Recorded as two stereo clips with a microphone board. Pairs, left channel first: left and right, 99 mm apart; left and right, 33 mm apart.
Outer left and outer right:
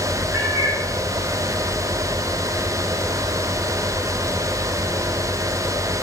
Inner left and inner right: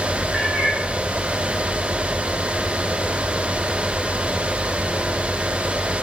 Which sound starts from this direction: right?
A cat meowing, at 0.3 s.